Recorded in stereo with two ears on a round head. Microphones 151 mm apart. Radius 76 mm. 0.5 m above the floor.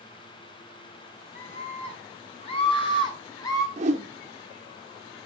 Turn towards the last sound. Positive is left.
turn(degrees=-40)  # may be behind; listen again after turning